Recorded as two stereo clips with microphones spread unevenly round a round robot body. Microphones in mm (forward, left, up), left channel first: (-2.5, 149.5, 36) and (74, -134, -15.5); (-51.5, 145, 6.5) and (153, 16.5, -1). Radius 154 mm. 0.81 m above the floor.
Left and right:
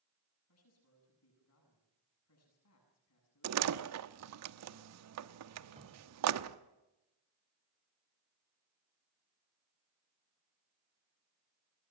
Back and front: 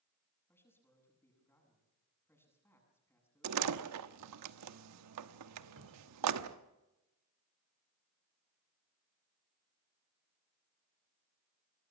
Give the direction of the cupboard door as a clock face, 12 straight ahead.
12 o'clock.